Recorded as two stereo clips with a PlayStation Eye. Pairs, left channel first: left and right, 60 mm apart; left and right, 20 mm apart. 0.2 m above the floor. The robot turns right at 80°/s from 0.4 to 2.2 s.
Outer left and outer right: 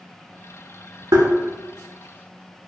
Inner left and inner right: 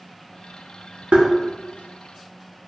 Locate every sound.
1.1 s tapping: 75° right (ahead or behind), 0.5 m; by 1.3 s 65° right (ahead or behind), 0.5 m